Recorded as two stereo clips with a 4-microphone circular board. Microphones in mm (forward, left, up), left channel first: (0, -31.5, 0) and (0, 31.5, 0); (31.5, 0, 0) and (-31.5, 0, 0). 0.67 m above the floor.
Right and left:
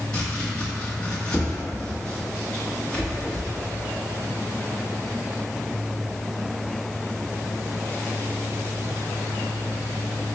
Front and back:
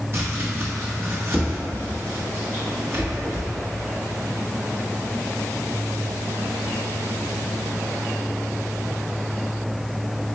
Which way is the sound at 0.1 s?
165° right.